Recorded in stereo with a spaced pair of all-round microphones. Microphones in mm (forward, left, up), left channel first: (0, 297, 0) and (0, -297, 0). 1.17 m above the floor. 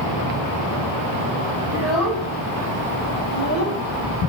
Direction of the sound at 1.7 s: 25° right (ahead or behind).